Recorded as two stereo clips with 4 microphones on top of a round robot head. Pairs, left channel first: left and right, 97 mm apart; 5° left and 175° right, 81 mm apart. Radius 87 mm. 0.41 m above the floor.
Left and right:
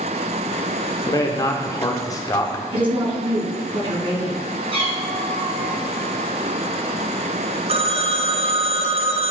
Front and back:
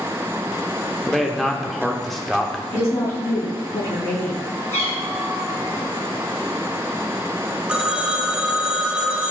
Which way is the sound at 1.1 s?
95° left.